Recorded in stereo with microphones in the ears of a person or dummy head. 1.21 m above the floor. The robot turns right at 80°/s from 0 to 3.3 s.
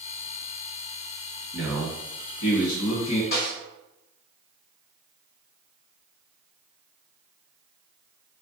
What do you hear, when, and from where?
1.5 s a man speaking: 15° right, 1.1 m; by 3.2 s 120° left, 1.1 m
3.3 s a snare drum: 60° left (ahead or behind), 1.4 m